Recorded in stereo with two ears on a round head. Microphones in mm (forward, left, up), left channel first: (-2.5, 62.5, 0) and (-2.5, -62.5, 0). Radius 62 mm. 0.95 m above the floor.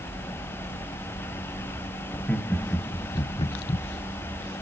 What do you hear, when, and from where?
2.1 s laughter: 10° left (ahead or behind), 1.4 m; by 3.9 s 40° left (ahead or behind), 0.6 m